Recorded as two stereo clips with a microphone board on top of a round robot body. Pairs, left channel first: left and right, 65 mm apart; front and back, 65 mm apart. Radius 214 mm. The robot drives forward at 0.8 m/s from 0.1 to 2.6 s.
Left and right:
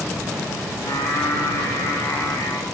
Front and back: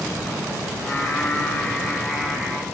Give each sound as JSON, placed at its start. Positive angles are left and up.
{"t": 0.8, "sound": "singing", "azimuth_deg": 55, "distance_m": 2.0}